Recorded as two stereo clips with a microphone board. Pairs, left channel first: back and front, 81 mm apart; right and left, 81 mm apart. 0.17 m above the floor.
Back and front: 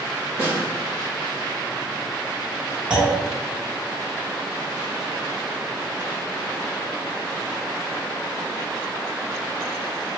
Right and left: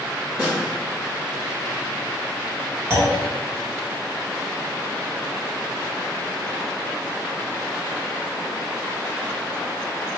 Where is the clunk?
65° left, 1.2 m.